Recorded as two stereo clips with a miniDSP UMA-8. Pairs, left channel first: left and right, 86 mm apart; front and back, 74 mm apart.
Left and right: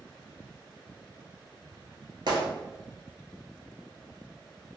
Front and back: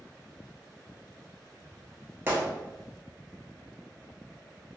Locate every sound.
2.3 s a gunshot: 120° right, 0.9 m